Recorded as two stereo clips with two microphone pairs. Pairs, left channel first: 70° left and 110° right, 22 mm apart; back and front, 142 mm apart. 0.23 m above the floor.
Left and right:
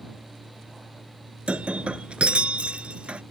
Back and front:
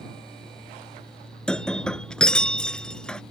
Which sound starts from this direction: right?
Breaking glass, at 1.5 s.